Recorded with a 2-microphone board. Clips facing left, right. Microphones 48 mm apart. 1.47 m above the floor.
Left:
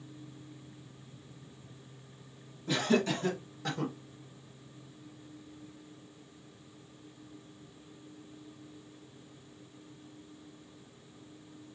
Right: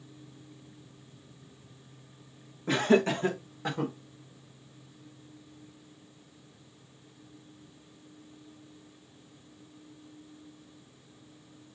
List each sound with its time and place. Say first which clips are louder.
2.7 s laughter: right 5 dB; 50° right (ahead or behind), 1.2 m; by 3.9 s 15° right (ahead or behind), 1.3 m